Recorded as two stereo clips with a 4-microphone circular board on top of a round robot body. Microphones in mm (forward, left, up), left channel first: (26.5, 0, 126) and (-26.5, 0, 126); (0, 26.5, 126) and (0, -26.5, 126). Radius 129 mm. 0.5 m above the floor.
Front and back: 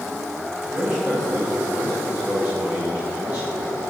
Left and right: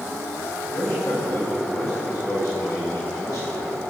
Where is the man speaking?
115° left, 4 m.